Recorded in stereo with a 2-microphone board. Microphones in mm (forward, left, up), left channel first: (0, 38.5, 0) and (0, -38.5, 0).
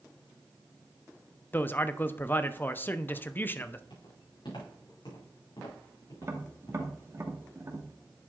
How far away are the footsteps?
About 4.5 m.